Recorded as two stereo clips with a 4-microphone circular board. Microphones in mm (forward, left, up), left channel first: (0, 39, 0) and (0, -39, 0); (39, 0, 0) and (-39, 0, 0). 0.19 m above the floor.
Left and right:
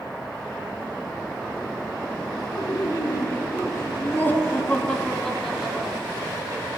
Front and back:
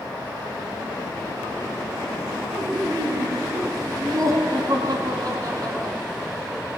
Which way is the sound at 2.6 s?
130° left.